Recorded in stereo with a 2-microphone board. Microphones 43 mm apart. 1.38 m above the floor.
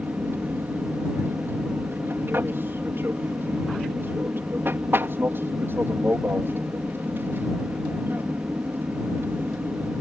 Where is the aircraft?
55° right (ahead or behind).